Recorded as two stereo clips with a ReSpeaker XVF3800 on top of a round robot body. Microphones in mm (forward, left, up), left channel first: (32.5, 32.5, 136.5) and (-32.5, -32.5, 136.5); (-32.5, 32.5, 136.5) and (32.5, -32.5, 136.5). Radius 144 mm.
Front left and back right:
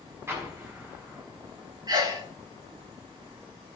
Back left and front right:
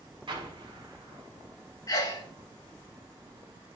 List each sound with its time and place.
0.3 s an explosion: 75° right, 5.5 m
1.9 s a sneeze: 175° right, 5.5 m